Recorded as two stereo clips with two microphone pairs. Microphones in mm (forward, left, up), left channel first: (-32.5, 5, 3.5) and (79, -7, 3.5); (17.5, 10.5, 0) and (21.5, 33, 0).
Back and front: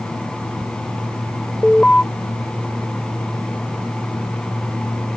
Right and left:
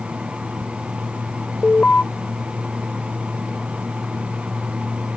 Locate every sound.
1.6 s an alarm: 105° right